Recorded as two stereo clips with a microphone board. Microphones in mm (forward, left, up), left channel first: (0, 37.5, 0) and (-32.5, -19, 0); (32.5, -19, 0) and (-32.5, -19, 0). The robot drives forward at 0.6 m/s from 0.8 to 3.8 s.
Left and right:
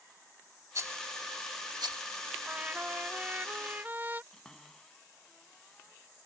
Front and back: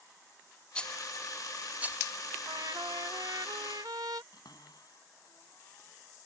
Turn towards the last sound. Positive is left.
turn(degrees=-20)